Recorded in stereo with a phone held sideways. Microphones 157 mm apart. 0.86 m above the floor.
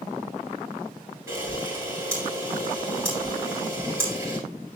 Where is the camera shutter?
15° right (ahead or behind), 9.5 m.